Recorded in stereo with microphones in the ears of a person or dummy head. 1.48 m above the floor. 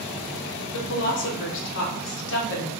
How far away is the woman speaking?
About 1.2 m.